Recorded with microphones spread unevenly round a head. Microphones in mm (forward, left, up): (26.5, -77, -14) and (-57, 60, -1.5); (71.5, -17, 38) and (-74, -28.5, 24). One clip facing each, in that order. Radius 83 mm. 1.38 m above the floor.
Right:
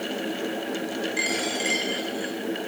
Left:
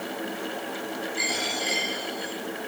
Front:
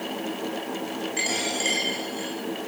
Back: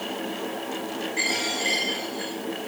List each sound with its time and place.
1.2 s a dropped coin: 40° right, 7 m